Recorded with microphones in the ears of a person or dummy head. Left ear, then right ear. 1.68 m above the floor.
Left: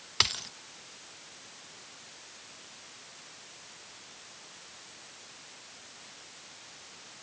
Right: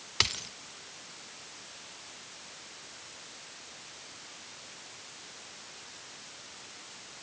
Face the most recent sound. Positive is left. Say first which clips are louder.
# left 1 dB
turn(degrees=5)  # may be behind; listen again after turning